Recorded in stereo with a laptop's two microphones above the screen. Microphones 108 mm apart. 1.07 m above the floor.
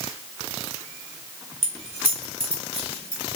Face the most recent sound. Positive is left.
turn(degrees=-45)  # may be behind; listen again after turning